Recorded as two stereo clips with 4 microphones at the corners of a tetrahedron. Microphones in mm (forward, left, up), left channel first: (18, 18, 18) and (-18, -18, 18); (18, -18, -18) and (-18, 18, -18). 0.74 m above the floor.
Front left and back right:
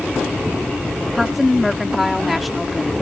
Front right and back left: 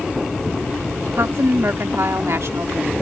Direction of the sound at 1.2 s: 140° left.